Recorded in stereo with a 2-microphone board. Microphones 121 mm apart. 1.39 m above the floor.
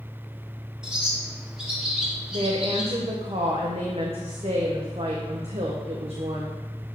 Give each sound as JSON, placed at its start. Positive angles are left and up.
{"t": 0.8, "sound": "a bird", "side_deg": -5, "distance_m": 1.7}
{"t": 2.3, "sound": "a woman speaking", "side_deg": -55, "distance_m": 1.1}